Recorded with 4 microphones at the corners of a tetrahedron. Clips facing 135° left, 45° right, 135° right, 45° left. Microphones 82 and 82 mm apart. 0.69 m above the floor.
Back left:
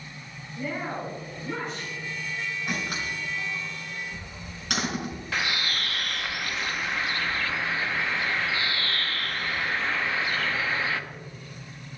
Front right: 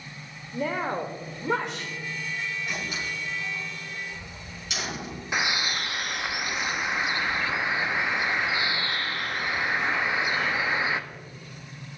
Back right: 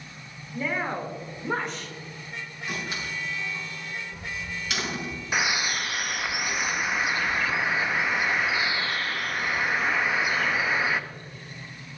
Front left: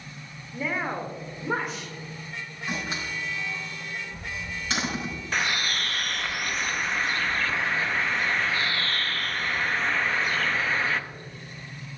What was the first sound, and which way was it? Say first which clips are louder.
A woman speaking: front right 4 dB, even; 40° right.